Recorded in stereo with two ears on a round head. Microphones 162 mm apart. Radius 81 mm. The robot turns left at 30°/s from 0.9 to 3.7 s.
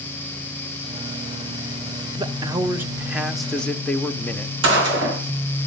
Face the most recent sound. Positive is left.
turn(degrees=-70)  # may be behind; listen again after turning